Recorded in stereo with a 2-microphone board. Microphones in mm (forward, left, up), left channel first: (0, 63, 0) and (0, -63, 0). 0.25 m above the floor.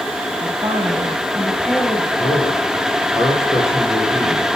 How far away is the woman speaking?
About 1.7 m.